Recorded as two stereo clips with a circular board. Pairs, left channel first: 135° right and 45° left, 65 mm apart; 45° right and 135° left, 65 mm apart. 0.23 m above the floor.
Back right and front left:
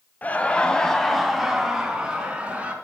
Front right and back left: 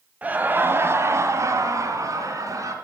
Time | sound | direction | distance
0.2 | laughter | 175° right | 1.3 m